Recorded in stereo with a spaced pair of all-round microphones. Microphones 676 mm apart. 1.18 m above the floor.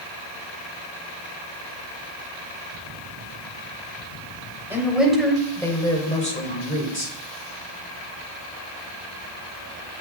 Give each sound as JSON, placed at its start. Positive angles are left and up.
{"t": 4.7, "sound": "a woman speaking", "side_deg": -5, "distance_m": 4.5}